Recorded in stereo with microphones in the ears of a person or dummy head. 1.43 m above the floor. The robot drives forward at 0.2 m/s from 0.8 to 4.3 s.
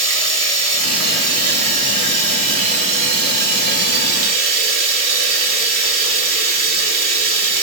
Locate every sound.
0.0 s running water: 40° right (ahead or behind), 2.5 m; by 7.6 s 50° right (ahead or behind), 1.8 m